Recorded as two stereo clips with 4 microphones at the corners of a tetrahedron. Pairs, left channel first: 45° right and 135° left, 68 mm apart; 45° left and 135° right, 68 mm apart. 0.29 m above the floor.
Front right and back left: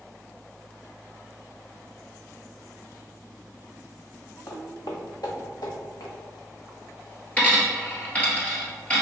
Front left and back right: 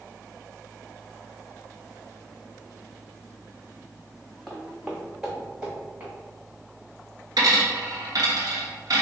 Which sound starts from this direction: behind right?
A dropped coin, at 7.4 s.